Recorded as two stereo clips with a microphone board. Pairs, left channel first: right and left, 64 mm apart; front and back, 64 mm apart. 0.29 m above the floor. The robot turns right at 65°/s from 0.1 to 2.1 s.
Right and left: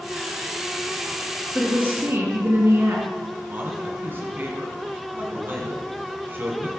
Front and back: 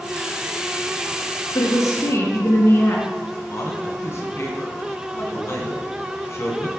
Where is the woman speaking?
10° left, 3 m; by 3.0 s 45° left, 3 m.